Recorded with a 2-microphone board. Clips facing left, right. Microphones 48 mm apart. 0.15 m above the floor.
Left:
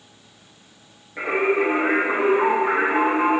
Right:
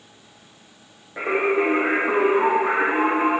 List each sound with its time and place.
1.2 s singing: 60° right (ahead or behind), 4 m